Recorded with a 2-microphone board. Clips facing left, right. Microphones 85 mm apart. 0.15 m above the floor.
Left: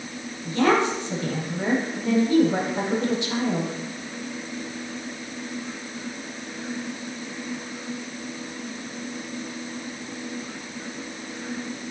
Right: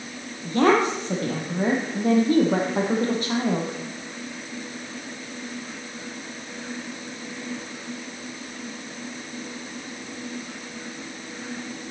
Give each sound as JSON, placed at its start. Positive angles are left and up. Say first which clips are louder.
{"t": 0.4, "sound": "a woman speaking", "louder": "right 2 dB", "side_deg": -45, "distance_m": 4.0}